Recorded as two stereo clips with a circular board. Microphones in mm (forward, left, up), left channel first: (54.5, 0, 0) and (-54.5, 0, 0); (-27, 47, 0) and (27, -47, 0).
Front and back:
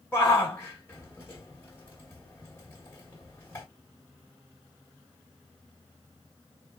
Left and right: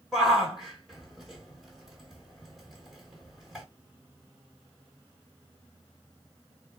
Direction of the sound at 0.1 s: 25° left.